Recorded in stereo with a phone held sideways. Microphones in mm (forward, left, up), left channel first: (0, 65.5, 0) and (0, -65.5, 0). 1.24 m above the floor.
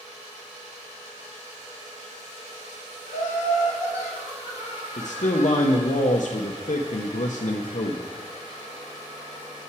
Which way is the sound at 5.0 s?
70° left (ahead or behind).